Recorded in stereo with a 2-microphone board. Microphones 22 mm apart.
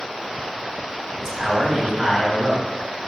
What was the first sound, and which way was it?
A man speaking, 30° right (ahead or behind).